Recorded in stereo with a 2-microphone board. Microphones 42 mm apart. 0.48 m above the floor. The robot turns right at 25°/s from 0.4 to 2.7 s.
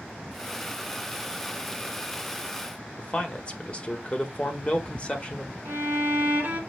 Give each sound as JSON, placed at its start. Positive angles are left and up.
{"t": 3.0, "sound": "a man speaking", "side_deg": 30, "distance_m": 0.7}
{"t": 5.7, "sound": "a violin", "side_deg": -55, "distance_m": 1.5}